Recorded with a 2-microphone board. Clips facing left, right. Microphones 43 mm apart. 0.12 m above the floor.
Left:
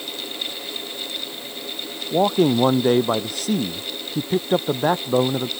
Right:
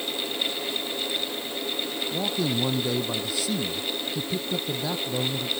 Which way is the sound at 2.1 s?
45° left (ahead or behind).